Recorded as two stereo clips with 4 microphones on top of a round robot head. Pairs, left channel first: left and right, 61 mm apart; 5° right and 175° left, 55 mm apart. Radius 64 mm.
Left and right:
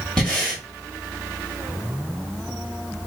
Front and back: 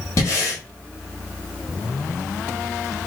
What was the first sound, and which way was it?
Breathing, 10° left.